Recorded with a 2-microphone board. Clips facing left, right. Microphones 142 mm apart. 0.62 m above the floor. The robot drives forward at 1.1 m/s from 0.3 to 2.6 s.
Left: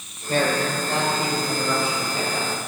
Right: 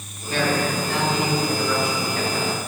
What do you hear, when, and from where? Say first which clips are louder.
0.3 s a man speaking: even; 45° left (ahead or behind), 2.5 m; by 2.6 s 20° left (ahead or behind), 4.5 m